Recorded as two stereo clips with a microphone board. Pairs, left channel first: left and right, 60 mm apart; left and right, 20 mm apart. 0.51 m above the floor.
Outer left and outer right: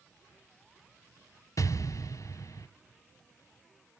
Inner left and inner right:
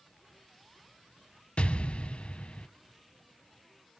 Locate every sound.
1.6 s an explosion: 70° left (ahead or behind), 0.8 m